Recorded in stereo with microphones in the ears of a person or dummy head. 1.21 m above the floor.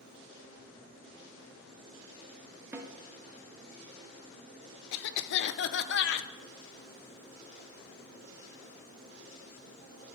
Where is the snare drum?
15° right (ahead or behind), 1.1 m.